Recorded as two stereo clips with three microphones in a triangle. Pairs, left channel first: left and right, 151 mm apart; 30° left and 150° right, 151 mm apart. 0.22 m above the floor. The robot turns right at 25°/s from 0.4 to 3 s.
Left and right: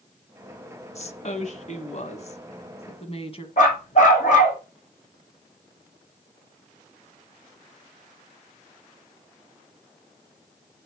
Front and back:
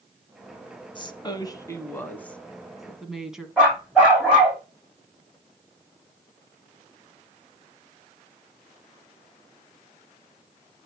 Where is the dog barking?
125° left, 4 m.